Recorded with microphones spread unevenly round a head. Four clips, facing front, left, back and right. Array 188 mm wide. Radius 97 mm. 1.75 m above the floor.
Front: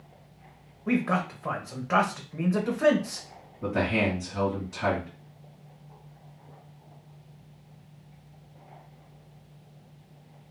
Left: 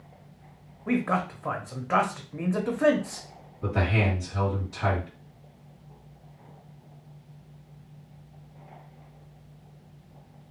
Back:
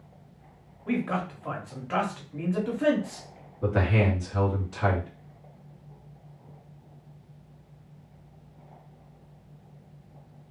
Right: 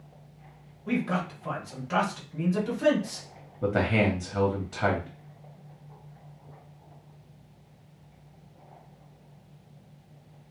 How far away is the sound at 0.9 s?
About 0.8 m.